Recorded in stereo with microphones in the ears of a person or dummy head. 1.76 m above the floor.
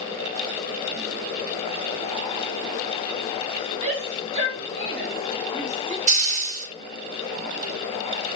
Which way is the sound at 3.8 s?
35° right (ahead or behind).